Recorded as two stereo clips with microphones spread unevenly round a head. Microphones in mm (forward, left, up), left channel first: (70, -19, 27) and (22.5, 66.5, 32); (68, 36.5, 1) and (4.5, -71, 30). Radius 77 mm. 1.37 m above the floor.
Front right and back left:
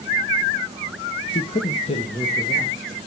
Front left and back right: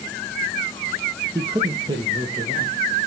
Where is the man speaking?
45° right, 0.7 m; by 2.8 s 70° right, 2.5 m.